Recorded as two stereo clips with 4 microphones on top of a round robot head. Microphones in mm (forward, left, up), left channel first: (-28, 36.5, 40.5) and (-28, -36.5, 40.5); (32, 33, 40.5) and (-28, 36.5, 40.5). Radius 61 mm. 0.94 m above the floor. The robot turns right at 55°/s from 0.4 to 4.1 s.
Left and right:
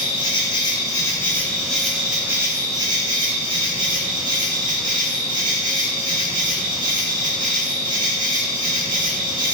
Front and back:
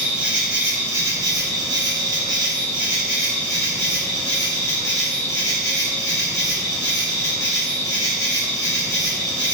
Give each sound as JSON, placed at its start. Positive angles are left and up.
{"t": 0.0, "sound": "an insect", "azimuth_deg": 100, "distance_m": 0.8}